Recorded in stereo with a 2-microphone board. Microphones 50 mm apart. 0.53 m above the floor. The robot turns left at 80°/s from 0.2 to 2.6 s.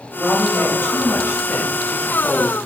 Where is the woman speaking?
Straight behind, 2.5 m; by 2.6 s 10° right, 2.5 m.